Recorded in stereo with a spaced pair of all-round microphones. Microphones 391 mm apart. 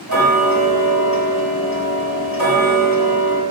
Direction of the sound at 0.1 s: 55° left (ahead or behind).